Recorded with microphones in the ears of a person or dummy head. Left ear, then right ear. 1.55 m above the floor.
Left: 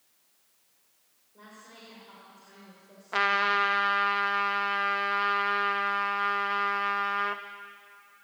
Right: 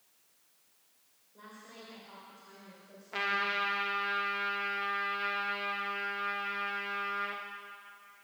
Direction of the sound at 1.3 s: 5° left (ahead or behind).